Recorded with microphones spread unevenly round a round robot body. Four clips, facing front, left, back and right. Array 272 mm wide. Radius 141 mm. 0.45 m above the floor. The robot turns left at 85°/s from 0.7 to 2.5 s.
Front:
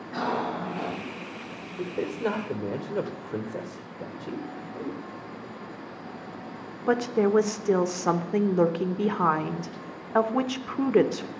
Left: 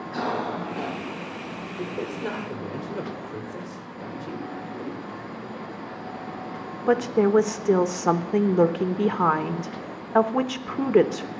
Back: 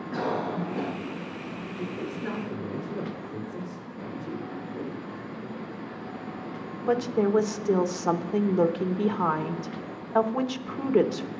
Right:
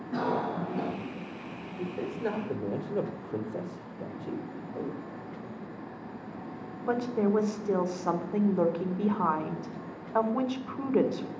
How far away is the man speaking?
About 2 m.